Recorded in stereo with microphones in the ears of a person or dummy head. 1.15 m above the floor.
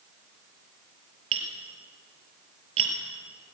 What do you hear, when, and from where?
1.3 s tapping: 30° right (ahead or behind), 4.5 m